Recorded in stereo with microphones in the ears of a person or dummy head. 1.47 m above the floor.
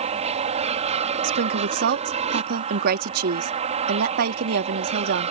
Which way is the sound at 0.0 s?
40° right (ahead or behind).